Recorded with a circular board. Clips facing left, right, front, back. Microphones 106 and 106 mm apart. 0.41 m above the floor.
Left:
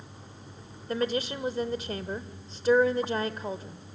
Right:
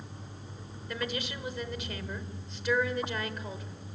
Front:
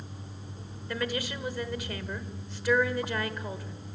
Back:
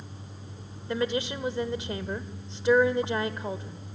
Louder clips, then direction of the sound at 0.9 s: Left 7 dB, back 4 dB; 125° left.